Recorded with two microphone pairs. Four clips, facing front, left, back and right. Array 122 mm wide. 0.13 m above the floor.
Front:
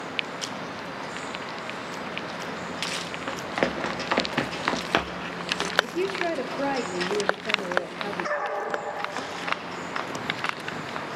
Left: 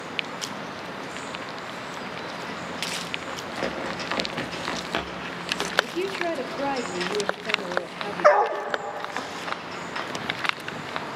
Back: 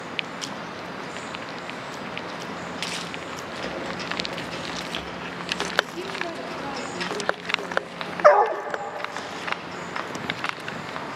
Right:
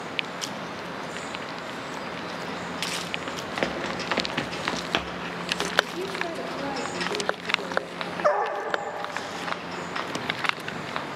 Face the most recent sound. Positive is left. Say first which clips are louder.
# left 6 dB, back 15 dB
turn(degrees=165)